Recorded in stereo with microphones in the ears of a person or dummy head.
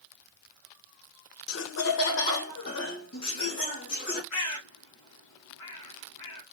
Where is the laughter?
80° left, 0.6 m.